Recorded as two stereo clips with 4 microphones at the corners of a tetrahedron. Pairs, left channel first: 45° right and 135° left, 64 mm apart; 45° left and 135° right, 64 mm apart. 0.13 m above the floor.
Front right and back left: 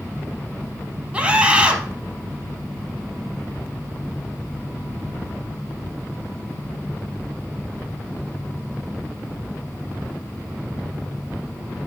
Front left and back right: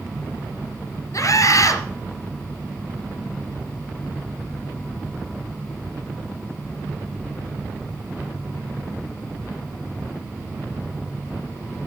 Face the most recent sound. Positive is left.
turn(degrees=65)